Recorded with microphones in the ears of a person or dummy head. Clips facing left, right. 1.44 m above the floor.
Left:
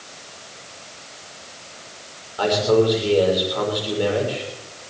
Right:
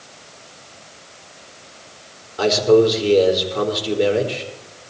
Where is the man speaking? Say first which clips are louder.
Right 4 dB; 30° right (ahead or behind), 4 m.